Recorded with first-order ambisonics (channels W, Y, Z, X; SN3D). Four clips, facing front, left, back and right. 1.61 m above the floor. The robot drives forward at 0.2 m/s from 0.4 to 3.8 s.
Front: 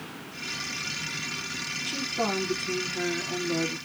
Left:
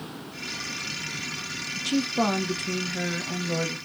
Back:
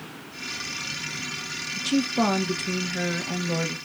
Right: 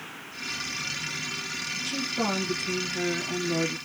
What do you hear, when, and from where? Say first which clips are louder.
1.8 s a woman speaking: left 6 dB, back 7 dB; 145° left, 1.2 m; by 3.8 s 155° left, 1.5 m